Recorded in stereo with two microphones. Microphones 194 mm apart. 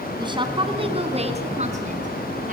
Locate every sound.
0.2 s a woman speaking: 25° right (ahead or behind), 3.5 m; by 2.5 s 40° right (ahead or behind), 5 m